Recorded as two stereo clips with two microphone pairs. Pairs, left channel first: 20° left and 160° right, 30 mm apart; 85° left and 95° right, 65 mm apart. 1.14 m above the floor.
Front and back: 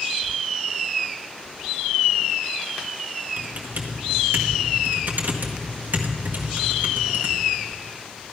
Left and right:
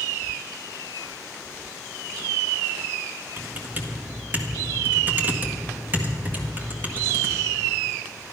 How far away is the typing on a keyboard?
About 1.7 m.